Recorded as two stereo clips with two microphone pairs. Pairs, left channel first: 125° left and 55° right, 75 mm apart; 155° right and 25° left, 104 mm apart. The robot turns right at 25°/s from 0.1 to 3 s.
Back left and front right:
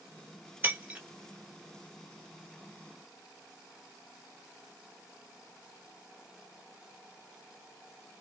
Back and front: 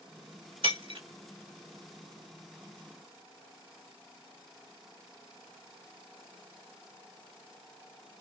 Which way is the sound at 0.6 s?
Straight ahead.